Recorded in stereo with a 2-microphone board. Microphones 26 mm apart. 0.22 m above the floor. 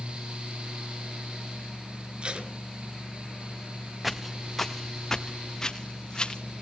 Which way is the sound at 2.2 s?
40° right (ahead or behind).